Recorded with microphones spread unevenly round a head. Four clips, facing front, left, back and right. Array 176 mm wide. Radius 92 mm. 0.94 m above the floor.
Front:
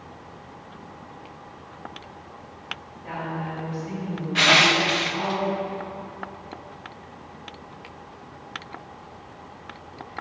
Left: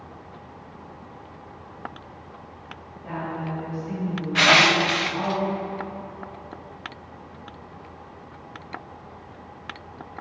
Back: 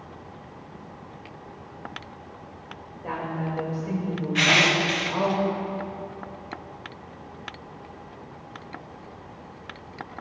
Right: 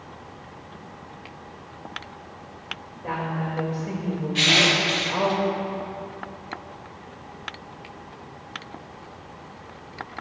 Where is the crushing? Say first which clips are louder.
Left 5 dB, front 3 dB; 50° left, 0.5 m.